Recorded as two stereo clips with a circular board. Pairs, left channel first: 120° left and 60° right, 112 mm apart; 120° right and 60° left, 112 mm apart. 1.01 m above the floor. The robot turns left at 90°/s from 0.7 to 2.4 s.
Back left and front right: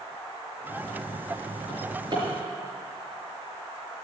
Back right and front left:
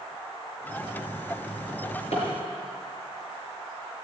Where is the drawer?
70° right, 6 m; by 2.2 s 120° right, 6 m.